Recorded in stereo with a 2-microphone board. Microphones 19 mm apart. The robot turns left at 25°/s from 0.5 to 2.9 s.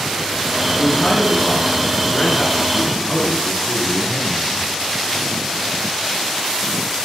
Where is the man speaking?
130° left, 5 m; by 4.7 s 75° left, 5 m.